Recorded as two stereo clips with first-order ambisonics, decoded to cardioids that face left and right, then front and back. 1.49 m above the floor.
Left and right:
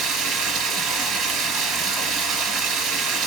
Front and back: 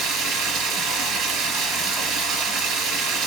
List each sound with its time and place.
0.0 s running water: 140° right, 2.5 m